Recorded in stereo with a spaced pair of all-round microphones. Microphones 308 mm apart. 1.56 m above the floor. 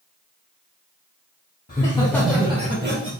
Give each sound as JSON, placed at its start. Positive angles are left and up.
{"t": 1.7, "sound": "laughter", "side_deg": 30, "distance_m": 0.6}